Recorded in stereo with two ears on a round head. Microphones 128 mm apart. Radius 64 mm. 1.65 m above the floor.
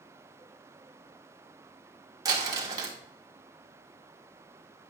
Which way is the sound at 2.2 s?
25° right (ahead or behind).